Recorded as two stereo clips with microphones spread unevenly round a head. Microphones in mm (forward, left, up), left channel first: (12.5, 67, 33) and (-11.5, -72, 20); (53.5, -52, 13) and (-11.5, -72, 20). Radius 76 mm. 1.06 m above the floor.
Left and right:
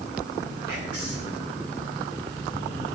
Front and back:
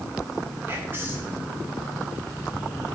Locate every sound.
0.7 s whispering: 105° right, 5 m